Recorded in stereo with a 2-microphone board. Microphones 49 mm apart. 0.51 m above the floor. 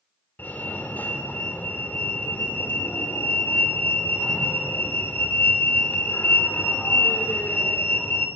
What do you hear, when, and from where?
0.4 s a fire alarm: 40° left (ahead or behind), 3 m